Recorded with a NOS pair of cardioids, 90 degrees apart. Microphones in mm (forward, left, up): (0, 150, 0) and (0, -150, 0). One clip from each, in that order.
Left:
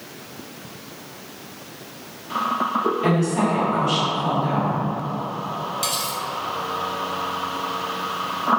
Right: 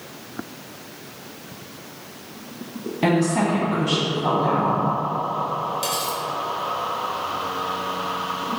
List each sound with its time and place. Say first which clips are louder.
3.0 s a woman speaking: right 1 dB; 60° right, 1.7 m
5.8 s cutlery clinking: even; straight ahead, 1.0 m